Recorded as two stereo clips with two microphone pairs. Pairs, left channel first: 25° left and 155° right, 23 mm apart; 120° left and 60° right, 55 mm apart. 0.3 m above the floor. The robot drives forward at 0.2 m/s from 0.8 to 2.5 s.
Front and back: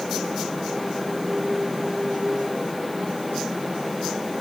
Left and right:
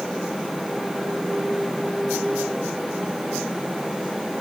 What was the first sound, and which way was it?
Only background noise.